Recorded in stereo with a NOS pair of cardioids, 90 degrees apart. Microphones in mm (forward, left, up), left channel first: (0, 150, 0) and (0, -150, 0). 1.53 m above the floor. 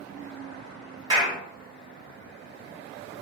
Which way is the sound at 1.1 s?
15° right.